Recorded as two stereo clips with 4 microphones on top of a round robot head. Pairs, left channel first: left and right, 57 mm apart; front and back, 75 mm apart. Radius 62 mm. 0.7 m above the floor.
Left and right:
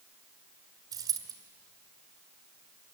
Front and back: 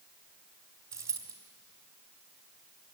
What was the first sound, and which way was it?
A dropped coin, 120° right.